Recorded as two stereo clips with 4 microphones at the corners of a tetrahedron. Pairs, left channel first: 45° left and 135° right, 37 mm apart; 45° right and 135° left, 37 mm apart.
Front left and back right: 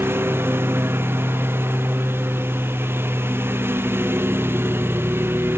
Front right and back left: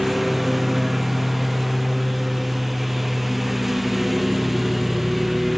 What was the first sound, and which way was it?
A lawn mower, 140° right.